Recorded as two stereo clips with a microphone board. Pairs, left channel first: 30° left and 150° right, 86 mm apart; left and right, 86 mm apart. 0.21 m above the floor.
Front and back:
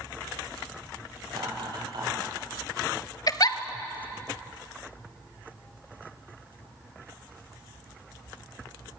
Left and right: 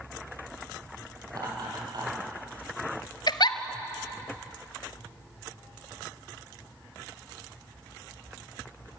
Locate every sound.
1.3 s laughter: 125° right, 8.5 m; by 2.3 s 120° right, 7.5 m
3.3 s a giggle: 65° left, 1.0 m